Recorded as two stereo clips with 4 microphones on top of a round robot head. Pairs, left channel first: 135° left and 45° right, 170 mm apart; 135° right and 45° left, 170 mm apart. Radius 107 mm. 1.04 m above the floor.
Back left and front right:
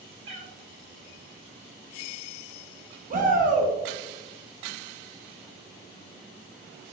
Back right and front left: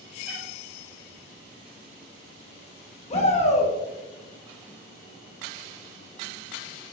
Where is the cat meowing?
35° right, 1.9 m.